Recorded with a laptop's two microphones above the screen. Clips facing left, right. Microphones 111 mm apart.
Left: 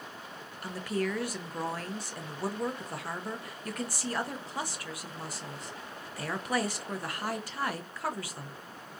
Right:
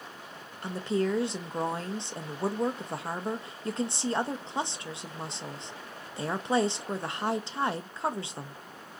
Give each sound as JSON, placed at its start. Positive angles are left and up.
{"t": 0.6, "sound": "a woman speaking", "side_deg": -25, "distance_m": 0.5}